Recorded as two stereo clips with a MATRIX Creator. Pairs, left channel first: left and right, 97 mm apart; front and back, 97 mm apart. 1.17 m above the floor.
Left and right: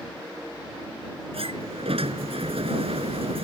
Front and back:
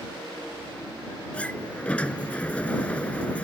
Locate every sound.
1.3 s a sliding door: 80° right